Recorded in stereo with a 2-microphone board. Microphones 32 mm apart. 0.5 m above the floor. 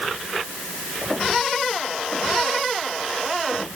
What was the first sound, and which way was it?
Only background noise.